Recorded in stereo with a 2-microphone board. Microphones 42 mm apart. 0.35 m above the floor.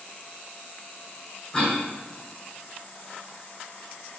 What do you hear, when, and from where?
1.5 s a cough: 15° left (ahead or behind), 1.8 m